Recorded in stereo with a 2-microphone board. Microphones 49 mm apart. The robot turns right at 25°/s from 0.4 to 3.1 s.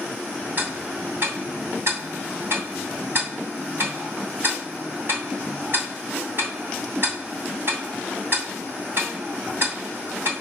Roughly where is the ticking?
Right.